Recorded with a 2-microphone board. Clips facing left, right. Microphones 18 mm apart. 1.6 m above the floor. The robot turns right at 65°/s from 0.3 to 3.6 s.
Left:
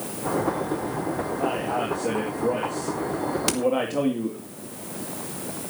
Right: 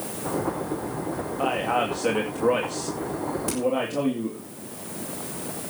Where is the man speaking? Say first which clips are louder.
Right 4 dB; 125° right, 2.5 m; by 4.5 s 15° left, 2.5 m.